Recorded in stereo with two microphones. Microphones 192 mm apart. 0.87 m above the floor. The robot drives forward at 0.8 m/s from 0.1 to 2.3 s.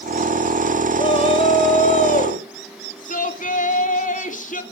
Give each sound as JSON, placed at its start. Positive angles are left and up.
{"t": 1.0, "sound": "a shout", "side_deg": 30, "distance_m": 3.0}